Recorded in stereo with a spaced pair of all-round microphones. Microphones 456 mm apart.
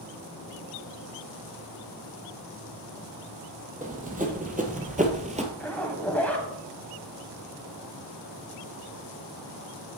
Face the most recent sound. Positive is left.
turn(degrees=5)  # may be behind; listen again after turning